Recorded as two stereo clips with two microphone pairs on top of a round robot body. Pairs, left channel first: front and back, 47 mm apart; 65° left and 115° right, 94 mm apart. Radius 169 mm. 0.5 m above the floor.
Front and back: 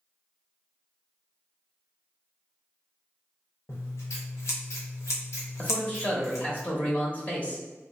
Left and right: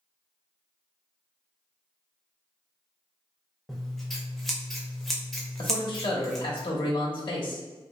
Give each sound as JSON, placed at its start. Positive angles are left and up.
{"t": 3.7, "sound": "scissors", "azimuth_deg": -25, "distance_m": 0.6}
{"t": 5.6, "sound": "a man speaking", "azimuth_deg": 60, "distance_m": 1.0}